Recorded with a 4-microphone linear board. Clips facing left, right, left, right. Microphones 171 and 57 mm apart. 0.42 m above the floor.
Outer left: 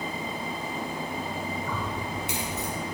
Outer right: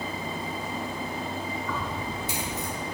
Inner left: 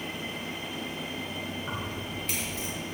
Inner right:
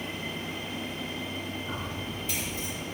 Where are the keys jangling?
60° left (ahead or behind), 3.5 m; by 2.7 s 70° left (ahead or behind), 4.5 m.